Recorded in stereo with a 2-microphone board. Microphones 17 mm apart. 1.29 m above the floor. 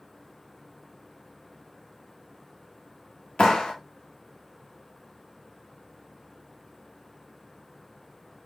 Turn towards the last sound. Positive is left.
turn(degrees=80)